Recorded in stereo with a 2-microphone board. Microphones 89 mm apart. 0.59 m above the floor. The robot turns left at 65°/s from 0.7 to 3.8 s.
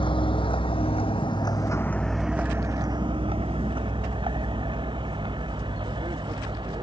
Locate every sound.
0.0 s a vehicle: 70° left (ahead or behind); by 6.8 s 60° right (ahead or behind)